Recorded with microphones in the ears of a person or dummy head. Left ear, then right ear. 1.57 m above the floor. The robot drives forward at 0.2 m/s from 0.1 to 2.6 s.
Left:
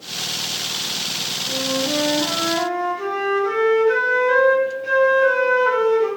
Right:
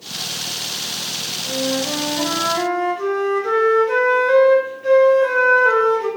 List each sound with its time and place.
1.5 s a flute: 35° right (ahead or behind), 1.0 m; by 6.1 s 30° right (ahead or behind), 1.2 m